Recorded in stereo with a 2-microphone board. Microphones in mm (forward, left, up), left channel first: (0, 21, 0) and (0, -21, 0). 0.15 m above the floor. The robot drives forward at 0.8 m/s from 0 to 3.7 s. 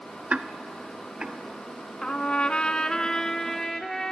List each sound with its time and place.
0.3 s ticking: 30° right (ahead or behind), 0.7 m; by 1.4 s 15° right (ahead or behind), 1.4 m
2.0 s a trumpet: 25° left (ahead or behind), 0.7 m; by 4.1 s 10° left (ahead or behind), 1.3 m